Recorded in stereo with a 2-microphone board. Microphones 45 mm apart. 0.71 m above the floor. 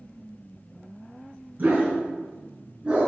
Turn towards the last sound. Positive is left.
turn(degrees=-20)  # may be behind; listen again after turning